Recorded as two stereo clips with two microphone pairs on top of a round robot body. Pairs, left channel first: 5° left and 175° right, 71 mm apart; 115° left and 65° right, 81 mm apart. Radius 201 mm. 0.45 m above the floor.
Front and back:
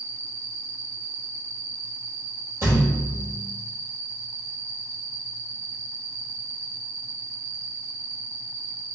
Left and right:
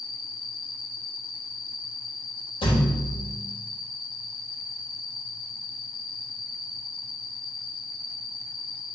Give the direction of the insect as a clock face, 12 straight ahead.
7 o'clock.